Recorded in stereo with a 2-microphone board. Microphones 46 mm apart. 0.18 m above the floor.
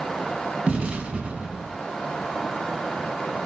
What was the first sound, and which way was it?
An explosion, 25° right (ahead or behind).